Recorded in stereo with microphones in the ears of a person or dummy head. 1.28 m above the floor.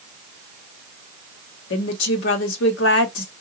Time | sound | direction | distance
1.7 | a woman speaking | 60° left (ahead or behind) | 0.9 m